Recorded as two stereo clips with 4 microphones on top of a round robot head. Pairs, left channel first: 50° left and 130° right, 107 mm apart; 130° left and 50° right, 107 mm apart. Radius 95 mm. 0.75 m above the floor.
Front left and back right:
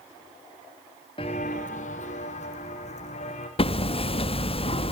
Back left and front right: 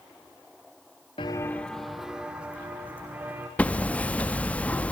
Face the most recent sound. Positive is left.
turn(degrees=55)